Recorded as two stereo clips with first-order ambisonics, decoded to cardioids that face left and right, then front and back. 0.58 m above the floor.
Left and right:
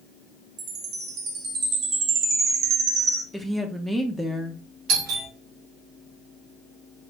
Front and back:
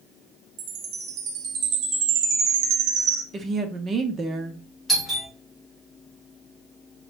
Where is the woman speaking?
170° right, 0.7 m.